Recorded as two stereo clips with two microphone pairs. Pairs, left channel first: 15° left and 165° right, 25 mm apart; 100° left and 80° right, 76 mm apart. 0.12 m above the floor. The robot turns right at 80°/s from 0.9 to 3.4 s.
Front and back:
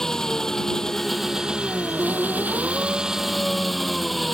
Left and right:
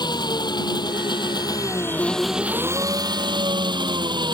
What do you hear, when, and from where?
0.0 s an engine running: 85° left; by 4.3 s 75° right